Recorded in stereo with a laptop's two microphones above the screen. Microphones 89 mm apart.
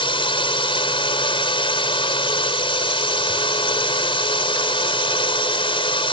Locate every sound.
0.0 s a drone: 75° left (ahead or behind)